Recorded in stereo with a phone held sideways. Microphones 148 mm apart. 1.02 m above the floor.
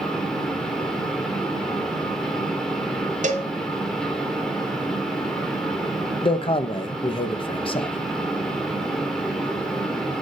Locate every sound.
0.0 s a fan: 5° left (ahead or behind), 1.7 m
3.2 s a cowbell: 55° right (ahead or behind), 0.9 m
6.2 s a man speaking: 40° left (ahead or behind), 0.7 m